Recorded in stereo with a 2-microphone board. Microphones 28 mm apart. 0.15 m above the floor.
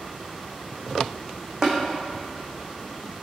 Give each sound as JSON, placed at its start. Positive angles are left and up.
{"t": 1.6, "sound": "tapping", "side_deg": -30, "distance_m": 1.6}